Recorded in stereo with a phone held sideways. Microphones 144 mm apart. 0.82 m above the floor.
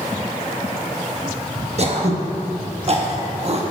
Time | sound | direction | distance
1.8 | throat clearing | 50° right (ahead or behind) | 0.9 m